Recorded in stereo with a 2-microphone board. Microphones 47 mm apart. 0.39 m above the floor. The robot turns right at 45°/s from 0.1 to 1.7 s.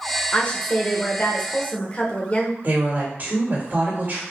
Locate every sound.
0.3 s a woman speaking: 50° left, 0.9 m; by 2.5 s 110° left, 0.9 m
2.6 s a woman speaking: 40° right (ahead or behind), 1.8 m